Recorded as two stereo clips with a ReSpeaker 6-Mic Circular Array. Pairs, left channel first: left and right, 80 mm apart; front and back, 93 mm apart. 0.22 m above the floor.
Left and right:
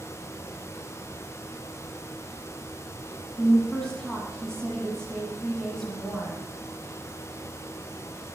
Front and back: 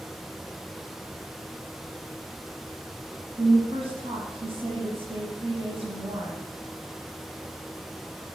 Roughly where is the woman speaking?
Behind.